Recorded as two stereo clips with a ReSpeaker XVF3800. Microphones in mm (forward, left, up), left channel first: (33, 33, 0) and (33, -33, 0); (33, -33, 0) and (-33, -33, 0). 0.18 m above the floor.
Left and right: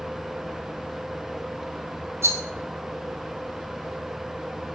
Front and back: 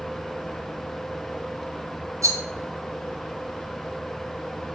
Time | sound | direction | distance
2.2 | a rattle | 140° right | 0.9 m